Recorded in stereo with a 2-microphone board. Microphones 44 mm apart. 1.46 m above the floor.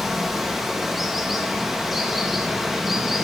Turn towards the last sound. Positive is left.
turn(degrees=-5)  # may be behind; listen again after turning